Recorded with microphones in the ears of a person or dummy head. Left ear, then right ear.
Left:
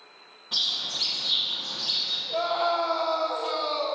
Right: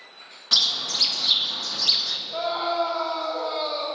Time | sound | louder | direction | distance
0.5 | a bird | right 6 dB | 65° right (ahead or behind) | 0.7 m
2.3 | a scream | left 1 dB | 25° left (ahead or behind) | 1.7 m